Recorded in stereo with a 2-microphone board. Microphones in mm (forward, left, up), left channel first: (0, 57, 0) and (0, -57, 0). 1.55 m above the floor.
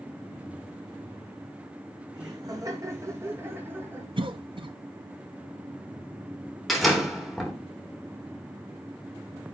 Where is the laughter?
40° right (ahead or behind), 4 m; by 4.1 s 15° right (ahead or behind), 4.5 m.